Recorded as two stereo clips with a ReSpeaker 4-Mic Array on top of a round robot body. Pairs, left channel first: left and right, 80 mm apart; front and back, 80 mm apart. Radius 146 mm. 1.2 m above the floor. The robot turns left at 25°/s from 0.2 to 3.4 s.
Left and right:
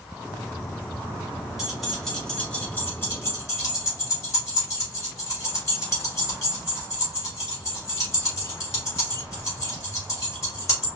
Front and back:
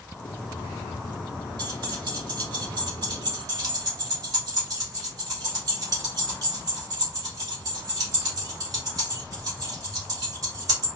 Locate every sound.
1.6 s keys jangling: 175° right, 2 m; by 10.9 s 140° left, 2 m